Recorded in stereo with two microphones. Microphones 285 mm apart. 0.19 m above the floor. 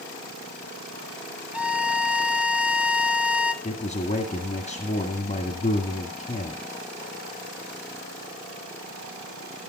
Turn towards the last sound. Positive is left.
turn(degrees=25)  # may be behind; listen again after turning